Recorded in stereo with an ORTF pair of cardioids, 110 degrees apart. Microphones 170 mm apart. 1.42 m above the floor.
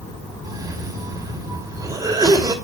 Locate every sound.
0.4 s a cough: 20° right, 2.5 m